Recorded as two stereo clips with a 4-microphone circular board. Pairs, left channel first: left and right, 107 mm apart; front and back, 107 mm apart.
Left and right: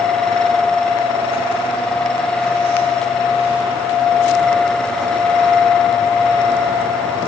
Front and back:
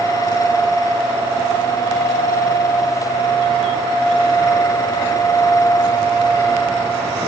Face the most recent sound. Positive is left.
No sound to turn to.